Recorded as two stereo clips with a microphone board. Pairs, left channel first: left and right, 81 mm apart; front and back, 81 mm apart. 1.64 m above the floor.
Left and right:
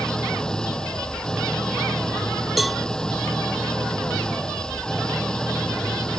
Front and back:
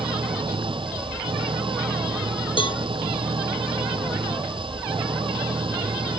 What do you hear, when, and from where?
0.0 s an engine running: 170° left
2.6 s a cowbell: straight ahead